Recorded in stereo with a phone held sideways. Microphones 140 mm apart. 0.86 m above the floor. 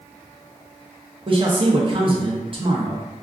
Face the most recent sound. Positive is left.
turn(degrees=-40)  # may be behind; listen again after turning